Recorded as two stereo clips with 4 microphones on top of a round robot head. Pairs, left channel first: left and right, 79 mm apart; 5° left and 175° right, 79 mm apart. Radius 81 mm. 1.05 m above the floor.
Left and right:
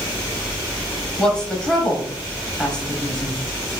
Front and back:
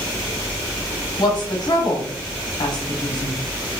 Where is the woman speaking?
15° left, 0.8 m.